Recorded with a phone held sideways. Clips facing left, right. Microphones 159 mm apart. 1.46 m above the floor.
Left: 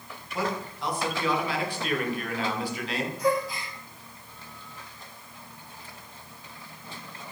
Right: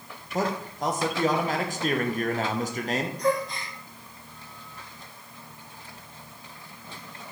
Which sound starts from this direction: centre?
A gasp, at 3.2 s.